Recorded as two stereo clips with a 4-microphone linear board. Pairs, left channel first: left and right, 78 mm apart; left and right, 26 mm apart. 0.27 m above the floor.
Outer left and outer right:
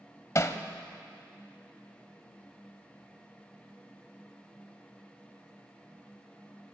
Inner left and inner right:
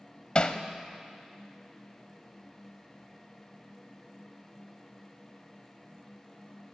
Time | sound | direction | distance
0.3 | hammering | 40° left (ahead or behind) | 0.6 m